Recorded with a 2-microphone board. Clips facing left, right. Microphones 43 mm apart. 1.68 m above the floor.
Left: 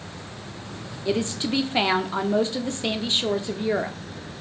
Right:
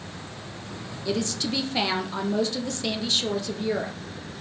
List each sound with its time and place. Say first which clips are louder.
1.1 s a woman speaking: left 3 dB; 25° left (ahead or behind), 0.5 m